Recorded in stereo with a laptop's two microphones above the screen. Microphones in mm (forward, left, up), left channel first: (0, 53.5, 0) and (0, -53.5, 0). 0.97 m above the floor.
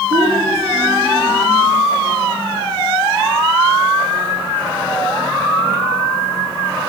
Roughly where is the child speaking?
Right.